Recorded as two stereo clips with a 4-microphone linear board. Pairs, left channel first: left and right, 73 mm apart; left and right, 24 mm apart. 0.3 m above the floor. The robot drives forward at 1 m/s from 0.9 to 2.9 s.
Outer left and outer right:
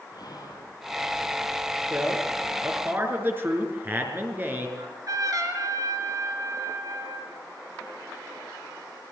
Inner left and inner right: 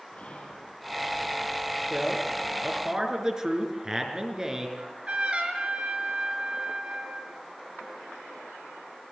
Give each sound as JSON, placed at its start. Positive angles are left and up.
{"t": 0.1, "sound": "whispering", "side_deg": 70, "distance_m": 4.0}
{"t": 1.9, "sound": "a man speaking", "side_deg": -25, "distance_m": 6.0}
{"t": 4.8, "sound": "a trumpet", "side_deg": -55, "distance_m": 4.0}